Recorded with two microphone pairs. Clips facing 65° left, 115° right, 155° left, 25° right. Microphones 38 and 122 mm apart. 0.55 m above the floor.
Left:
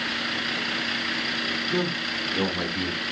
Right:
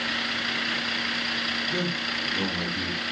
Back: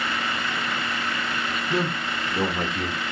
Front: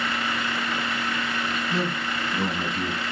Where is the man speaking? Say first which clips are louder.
Left 1 dB, back 4 dB; 130° left, 0.9 m; by 3.0 s 140° left, 1.6 m.